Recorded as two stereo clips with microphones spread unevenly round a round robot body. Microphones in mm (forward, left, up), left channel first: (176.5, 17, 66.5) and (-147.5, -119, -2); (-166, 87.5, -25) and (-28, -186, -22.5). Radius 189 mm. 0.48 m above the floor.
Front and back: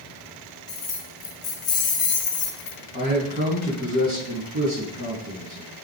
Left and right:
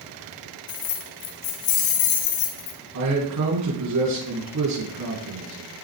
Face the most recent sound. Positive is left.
turn(degrees=-90)